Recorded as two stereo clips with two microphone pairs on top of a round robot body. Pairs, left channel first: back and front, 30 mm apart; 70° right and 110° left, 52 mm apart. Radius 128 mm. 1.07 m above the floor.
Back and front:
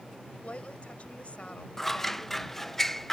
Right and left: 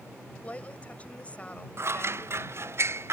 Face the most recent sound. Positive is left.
turn(degrees=95)